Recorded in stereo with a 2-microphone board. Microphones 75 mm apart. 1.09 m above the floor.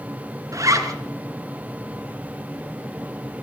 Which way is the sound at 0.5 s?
50° right (ahead or behind).